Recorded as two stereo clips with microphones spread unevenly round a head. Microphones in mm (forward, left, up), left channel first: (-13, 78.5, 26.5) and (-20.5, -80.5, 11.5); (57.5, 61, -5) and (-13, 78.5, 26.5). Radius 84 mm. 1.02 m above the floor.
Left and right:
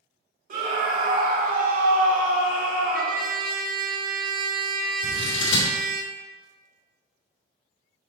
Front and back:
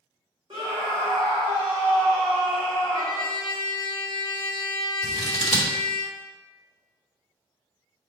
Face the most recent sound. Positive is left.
turn(degrees=70)